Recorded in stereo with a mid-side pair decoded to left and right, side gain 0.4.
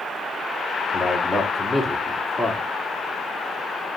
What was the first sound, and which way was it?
A man speaking, 10° left.